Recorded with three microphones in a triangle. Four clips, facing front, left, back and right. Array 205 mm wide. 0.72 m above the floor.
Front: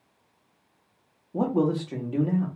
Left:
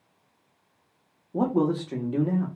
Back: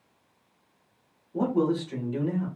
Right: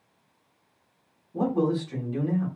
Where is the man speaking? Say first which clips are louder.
Left 1 dB, front 1 dB; 65° left, 1.3 m.